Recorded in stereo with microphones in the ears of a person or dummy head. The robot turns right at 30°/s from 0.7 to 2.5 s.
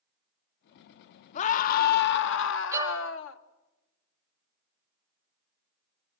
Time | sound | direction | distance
1.4 | a scream | 45° left | 1.5 m
2.7 | a violin | 15° right (ahead or behind) | 1.8 m